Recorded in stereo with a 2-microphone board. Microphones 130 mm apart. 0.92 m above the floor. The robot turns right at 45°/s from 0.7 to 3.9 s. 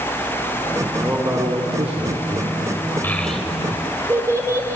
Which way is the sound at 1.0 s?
160° right.